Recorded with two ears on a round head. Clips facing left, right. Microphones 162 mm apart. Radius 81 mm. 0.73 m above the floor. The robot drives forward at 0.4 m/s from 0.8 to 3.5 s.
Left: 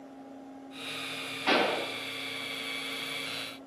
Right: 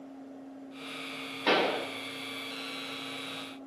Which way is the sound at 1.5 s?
65° right (ahead or behind).